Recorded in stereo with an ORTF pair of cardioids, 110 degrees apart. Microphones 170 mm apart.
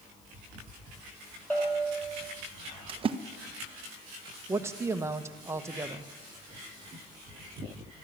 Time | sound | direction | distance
1.5 | a bell | 10° left | 6 m
2.9 | a splash | 30° right | 0.7 m
4.5 | a man speaking | 15° right | 1.0 m